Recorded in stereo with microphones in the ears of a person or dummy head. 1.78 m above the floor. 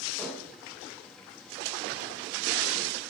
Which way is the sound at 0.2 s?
5° left (ahead or behind).